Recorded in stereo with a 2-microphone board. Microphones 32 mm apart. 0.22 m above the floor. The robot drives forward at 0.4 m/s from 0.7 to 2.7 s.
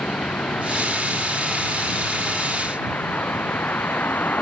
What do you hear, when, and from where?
0.0 s a vehicle: 85° left